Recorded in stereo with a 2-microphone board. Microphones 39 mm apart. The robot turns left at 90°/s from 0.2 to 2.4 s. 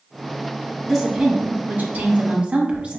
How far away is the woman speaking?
About 0.9 m.